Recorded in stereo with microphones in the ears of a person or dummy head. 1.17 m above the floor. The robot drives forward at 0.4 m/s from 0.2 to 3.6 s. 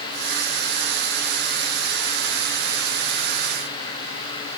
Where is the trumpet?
No trumpet in this recording.